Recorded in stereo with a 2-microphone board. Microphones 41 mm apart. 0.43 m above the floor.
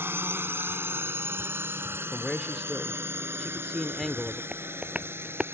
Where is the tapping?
30° right (ahead or behind).